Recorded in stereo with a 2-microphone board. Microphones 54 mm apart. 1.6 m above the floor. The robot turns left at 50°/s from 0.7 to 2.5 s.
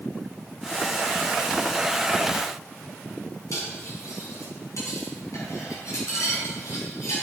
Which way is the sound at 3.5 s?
70° left (ahead or behind).